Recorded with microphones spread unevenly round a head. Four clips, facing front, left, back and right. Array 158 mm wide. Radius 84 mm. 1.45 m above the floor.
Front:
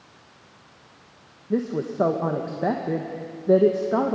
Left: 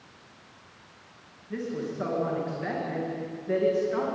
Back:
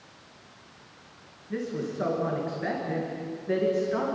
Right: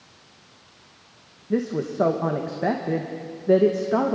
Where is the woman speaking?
45° right, 2.0 m.